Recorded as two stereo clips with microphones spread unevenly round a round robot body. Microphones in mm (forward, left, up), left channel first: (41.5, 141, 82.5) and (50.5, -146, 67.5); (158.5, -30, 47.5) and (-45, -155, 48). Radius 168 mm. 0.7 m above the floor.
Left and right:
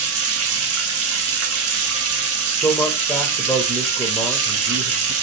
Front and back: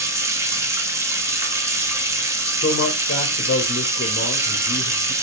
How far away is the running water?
About 0.9 m.